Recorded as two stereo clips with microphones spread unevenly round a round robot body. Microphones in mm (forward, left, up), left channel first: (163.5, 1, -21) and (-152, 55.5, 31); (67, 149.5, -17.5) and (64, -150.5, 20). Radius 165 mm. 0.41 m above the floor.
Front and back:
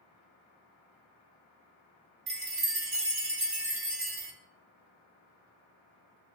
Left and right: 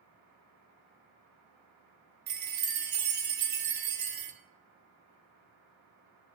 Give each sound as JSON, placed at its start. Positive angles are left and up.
{"t": 2.3, "sound": "a chime", "azimuth_deg": -140, "distance_m": 0.9}